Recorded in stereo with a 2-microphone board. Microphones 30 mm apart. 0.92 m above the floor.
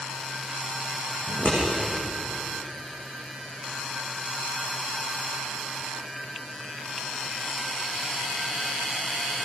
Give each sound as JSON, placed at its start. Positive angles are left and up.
{"t": 1.3, "sound": "scissors", "side_deg": 85, "distance_m": 9.0}